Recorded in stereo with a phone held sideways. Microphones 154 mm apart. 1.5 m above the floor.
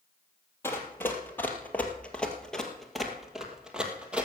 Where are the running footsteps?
15° left (ahead or behind), 1.8 m; by 4.3 s 10° right (ahead or behind), 1.9 m.